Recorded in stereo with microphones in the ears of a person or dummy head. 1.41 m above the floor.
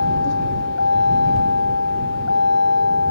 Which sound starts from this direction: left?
A vehicle, at 0.0 s.